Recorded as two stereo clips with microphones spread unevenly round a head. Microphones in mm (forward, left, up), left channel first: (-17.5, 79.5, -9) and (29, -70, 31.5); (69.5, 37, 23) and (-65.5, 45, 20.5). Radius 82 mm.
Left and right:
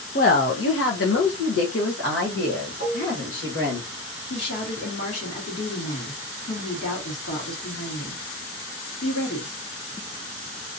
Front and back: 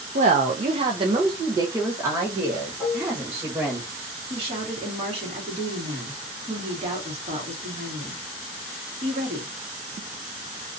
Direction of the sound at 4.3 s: 130° left.